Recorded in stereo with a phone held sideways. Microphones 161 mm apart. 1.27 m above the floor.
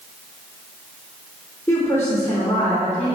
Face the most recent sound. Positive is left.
turn(degrees=15)  # may be behind; listen again after turning